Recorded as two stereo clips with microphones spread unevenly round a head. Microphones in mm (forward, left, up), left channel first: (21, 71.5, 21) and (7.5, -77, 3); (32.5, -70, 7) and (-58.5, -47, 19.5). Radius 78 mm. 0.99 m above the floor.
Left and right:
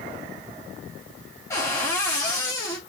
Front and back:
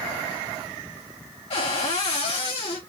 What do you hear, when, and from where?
1.5 s a cupboard door: 10° left, 3 m